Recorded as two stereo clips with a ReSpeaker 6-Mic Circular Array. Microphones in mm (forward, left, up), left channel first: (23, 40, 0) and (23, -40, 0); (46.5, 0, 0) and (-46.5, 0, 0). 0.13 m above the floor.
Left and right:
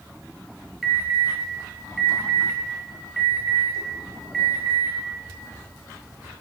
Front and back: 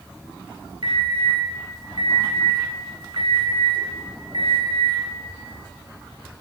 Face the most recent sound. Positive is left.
turn(degrees=-175)